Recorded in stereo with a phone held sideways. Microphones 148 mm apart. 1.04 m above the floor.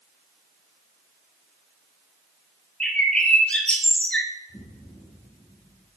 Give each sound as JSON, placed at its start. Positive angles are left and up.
{"t": 2.8, "sound": "a bird", "side_deg": 10, "distance_m": 1.0}
{"t": 4.5, "sound": "an explosion", "side_deg": 50, "distance_m": 3.0}